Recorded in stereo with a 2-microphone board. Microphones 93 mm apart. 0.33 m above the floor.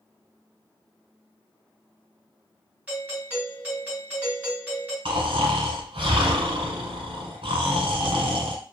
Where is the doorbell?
15° right (ahead or behind), 1.7 m.